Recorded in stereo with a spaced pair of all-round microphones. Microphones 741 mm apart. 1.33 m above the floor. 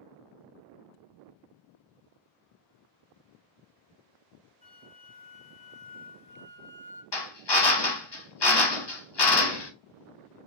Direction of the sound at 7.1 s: 40° left (ahead or behind).